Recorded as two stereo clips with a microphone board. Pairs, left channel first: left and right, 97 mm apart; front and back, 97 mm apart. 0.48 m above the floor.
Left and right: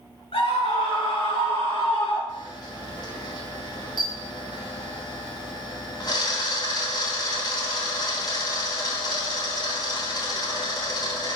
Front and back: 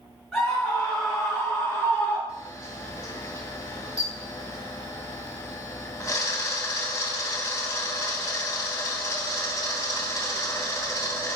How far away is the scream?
About 4 m.